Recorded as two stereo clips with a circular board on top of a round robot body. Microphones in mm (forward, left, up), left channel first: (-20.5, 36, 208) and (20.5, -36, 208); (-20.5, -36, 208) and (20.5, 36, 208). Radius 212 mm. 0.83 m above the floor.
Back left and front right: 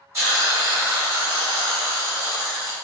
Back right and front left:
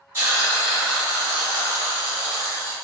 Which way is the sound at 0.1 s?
5° right.